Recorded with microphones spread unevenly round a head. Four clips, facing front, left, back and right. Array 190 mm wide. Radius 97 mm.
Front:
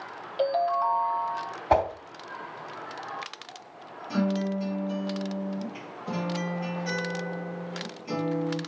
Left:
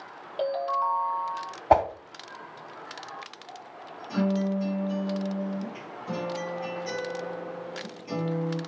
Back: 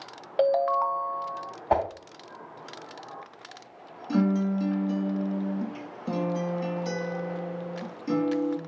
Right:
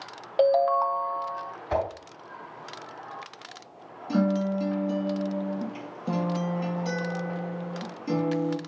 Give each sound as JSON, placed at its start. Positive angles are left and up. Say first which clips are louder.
{"t": 0.4, "sound": "a ringtone", "louder": "right 6 dB, back 2 dB", "azimuth_deg": -95, "distance_m": 0.6}
{"t": 1.7, "sound": "a whoosh", "louder": "left 7 dB, front 2 dB", "azimuth_deg": 80, "distance_m": 2.5}
{"t": 4.1, "sound": "a guitar", "louder": "right 2 dB, back 3 dB", "azimuth_deg": -125, "distance_m": 2.5}